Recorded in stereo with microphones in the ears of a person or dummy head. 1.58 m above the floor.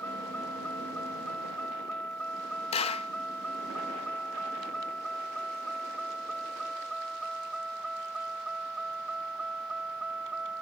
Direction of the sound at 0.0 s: 5° left (ahead or behind).